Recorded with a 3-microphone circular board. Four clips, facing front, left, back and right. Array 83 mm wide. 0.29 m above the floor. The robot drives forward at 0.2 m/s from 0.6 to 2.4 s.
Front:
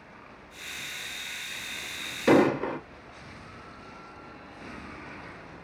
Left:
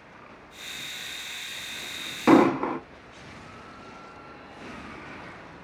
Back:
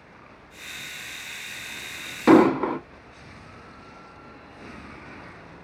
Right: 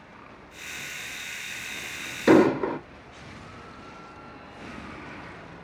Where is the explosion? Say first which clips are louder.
Even, back 5 dB; 145° left, 1.5 m.